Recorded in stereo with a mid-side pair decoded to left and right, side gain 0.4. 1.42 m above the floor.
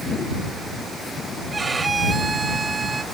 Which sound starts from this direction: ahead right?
A violin, at 1.5 s.